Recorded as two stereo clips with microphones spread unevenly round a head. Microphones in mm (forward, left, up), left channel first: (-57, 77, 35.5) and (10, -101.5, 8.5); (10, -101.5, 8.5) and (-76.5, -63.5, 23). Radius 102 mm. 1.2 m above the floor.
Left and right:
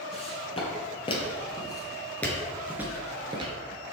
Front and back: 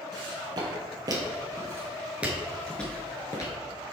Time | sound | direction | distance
0.1 | footsteps | 160° left | 2.5 m